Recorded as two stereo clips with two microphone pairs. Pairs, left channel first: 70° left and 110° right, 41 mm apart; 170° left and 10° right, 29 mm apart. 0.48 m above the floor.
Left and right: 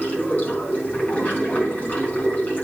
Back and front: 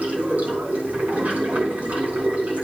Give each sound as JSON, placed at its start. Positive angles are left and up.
{"t": 0.0, "sound": "running water", "azimuth_deg": 20, "distance_m": 4.5}